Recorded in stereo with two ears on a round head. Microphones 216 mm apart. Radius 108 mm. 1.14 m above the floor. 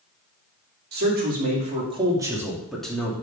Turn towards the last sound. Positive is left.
turn(degrees=10)  # may be behind; listen again after turning